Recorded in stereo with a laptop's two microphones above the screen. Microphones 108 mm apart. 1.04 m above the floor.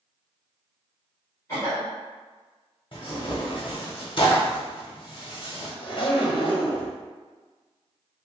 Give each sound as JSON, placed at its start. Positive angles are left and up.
{"t": 1.5, "sound": "a cough", "side_deg": 25, "distance_m": 1.6}
{"t": 2.9, "sound": "tearing paper", "side_deg": 50, "distance_m": 0.9}
{"t": 5.8, "sound": "a zipper", "side_deg": 50, "distance_m": 0.8}